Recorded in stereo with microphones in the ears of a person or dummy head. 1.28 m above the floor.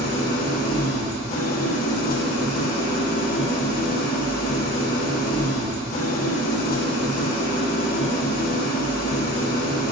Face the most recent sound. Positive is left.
turn(degrees=50)  # may be behind; listen again after turning